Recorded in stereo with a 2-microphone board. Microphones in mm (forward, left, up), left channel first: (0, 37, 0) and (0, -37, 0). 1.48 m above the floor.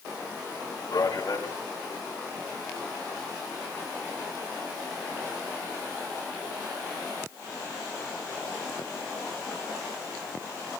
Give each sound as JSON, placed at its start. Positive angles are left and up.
{"t": 0.9, "sound": "a man speaking", "side_deg": 60, "distance_m": 3.5}